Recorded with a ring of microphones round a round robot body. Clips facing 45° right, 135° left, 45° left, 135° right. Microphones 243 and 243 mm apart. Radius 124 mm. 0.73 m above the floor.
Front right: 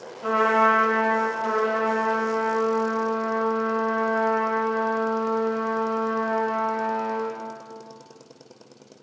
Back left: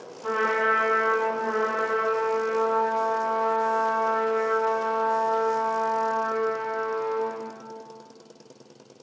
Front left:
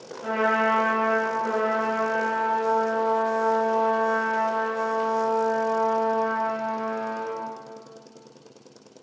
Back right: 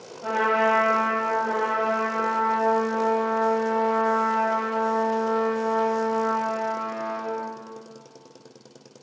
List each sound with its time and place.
0.2 s a trumpet: 40° right, 2.5 m